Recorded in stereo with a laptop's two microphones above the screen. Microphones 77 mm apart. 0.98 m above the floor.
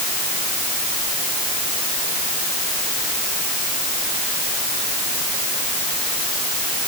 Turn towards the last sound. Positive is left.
No sound to turn to.